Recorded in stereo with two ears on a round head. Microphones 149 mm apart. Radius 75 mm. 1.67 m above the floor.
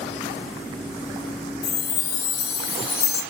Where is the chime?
65° left (ahead or behind), 2.5 m.